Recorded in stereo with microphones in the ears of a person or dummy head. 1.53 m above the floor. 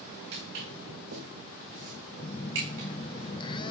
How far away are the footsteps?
About 9 m.